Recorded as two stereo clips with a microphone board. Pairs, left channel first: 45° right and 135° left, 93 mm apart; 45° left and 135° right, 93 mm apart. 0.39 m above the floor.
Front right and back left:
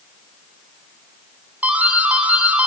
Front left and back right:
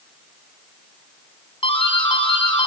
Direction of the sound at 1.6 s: 60° left.